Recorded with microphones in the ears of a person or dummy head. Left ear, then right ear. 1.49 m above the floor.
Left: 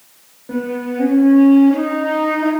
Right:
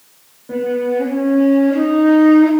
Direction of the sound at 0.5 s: 10° left (ahead or behind).